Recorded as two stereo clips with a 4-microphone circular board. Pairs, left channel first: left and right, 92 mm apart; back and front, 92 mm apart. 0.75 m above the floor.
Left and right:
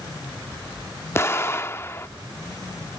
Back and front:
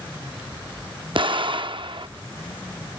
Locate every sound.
1.1 s an explosion: 30° left